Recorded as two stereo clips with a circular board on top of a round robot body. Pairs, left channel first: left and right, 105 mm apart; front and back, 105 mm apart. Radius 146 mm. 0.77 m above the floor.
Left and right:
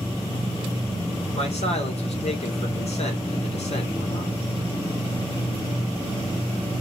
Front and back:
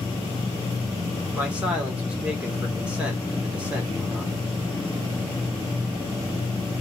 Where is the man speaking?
100° left, 2.5 m.